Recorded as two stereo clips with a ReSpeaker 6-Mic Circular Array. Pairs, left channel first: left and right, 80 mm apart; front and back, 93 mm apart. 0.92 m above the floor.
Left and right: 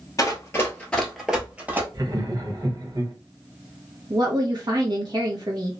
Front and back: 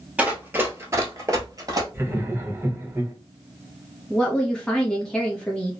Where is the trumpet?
No trumpet in this recording.